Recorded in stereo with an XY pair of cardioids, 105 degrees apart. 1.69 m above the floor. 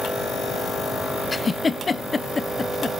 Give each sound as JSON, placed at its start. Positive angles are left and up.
{"t": 1.3, "sound": "a giggle", "azimuth_deg": 25, "distance_m": 1.1}